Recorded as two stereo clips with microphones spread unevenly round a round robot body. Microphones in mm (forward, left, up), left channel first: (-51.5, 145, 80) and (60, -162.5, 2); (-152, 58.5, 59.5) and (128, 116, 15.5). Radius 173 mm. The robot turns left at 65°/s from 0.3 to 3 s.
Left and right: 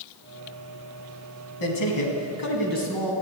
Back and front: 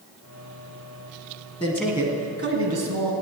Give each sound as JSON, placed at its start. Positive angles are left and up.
{"t": 1.6, "sound": "a man speaking", "azimuth_deg": 120, "distance_m": 3.5}